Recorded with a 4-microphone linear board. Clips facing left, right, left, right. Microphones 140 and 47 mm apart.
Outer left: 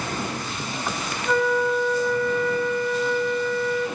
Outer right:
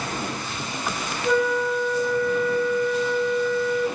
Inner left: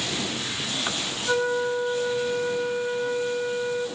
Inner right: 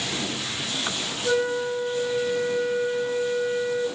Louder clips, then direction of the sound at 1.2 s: Even, even; 50° right (ahead or behind).